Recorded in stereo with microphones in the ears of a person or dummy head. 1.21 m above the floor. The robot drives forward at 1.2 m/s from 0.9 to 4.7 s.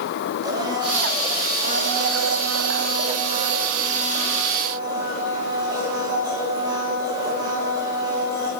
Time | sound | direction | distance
0.4 | a blender | 25° right (ahead or behind) | 1.9 m